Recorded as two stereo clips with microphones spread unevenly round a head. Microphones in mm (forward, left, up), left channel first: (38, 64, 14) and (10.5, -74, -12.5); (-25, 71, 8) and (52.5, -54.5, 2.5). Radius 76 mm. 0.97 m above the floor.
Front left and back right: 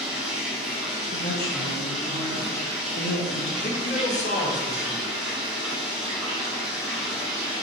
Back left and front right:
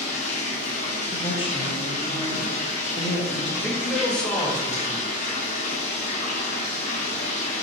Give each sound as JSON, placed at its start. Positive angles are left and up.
{"t": 0.0, "sound": "running water", "azimuth_deg": 170, "distance_m": 0.9}
{"t": 1.1, "sound": "a woman speaking", "azimuth_deg": 70, "distance_m": 1.0}
{"t": 3.6, "sound": "a man speaking", "azimuth_deg": 35, "distance_m": 1.0}